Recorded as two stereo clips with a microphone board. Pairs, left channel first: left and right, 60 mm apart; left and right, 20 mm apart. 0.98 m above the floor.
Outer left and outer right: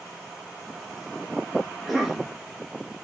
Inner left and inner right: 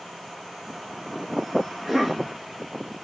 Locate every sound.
1.7 s a cough: centre (ahead or behind), 3 m